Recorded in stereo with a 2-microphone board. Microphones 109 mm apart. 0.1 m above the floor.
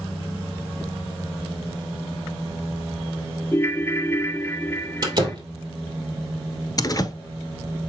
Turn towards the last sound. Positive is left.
turn(degrees=35)  # may be behind; listen again after turning